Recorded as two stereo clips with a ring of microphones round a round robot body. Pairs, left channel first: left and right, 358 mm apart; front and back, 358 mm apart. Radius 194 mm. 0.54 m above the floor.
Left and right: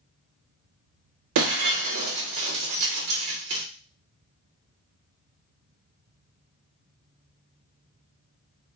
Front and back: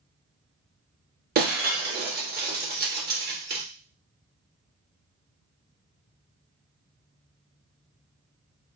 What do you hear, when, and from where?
1.4 s breaking glass: 115° right, 0.9 m